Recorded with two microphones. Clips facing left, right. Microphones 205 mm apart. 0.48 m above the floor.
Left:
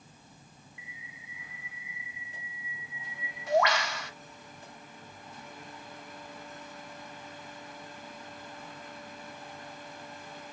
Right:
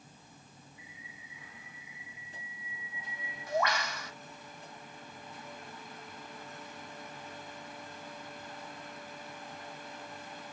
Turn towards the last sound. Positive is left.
turn(degrees=70)  # may be behind; listen again after turning